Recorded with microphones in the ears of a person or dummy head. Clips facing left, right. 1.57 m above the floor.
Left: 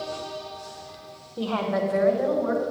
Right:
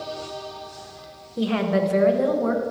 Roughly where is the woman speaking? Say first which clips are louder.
Right 4 dB; centre.